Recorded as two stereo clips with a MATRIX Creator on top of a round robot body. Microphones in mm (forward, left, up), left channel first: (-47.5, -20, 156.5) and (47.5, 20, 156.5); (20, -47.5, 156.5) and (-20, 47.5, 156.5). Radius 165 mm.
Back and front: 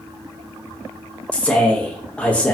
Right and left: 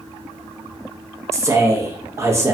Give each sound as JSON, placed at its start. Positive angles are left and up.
{"t": 1.3, "sound": "a man speaking", "azimuth_deg": 140, "distance_m": 1.1}